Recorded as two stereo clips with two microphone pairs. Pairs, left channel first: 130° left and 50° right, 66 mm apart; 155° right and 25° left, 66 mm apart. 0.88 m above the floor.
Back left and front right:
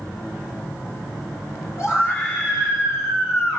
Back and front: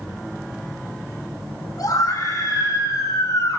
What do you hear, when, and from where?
1.8 s a scream: 175° left, 9.5 m; by 3.6 s straight behind, 11 m